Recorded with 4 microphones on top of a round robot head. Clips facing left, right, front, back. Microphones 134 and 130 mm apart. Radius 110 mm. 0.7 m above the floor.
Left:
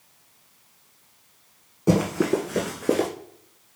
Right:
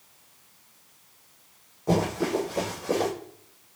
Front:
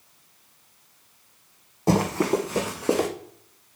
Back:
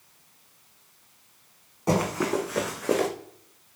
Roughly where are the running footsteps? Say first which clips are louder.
Left 4 dB, front 3 dB; ahead left.